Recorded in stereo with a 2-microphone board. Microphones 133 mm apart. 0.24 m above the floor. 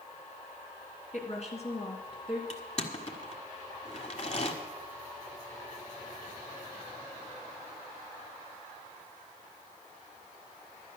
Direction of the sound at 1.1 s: 55° left (ahead or behind).